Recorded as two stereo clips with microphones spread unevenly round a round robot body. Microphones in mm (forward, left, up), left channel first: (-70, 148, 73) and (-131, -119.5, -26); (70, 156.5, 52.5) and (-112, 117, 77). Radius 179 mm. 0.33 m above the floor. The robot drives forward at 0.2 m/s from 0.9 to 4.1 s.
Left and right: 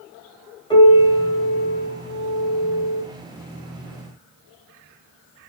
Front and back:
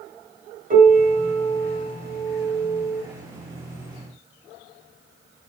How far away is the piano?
About 1.3 m.